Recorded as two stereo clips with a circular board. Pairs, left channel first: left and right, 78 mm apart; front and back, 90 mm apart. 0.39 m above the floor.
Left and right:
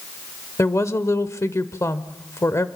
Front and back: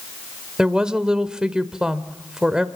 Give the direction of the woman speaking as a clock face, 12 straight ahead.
9 o'clock.